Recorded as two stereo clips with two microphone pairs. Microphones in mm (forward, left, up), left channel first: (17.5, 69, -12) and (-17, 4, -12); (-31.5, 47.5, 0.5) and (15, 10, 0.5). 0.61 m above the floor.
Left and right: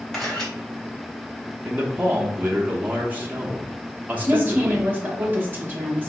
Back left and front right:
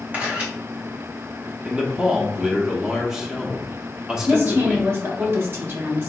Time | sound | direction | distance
0.1 | a camera shutter | 10° right | 1.1 m
1.6 | a man speaking | 105° right | 0.6 m
4.3 | a woman speaking | 65° right | 0.9 m